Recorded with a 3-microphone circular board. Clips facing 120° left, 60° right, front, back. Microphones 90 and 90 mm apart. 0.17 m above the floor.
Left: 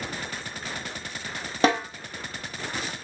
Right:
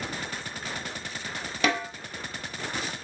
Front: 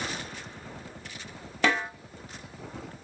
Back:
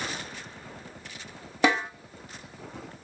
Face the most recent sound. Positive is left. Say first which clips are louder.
# left 5 dB, back 2 dB
turn(degrees=120)